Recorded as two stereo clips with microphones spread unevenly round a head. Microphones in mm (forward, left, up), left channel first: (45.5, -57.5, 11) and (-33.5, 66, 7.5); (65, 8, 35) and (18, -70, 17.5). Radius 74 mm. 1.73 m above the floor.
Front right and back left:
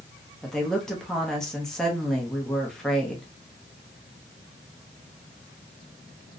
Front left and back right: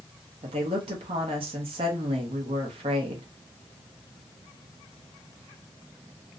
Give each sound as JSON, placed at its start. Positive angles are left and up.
{"t": 0.4, "sound": "a woman speaking", "azimuth_deg": -140, "distance_m": 0.6}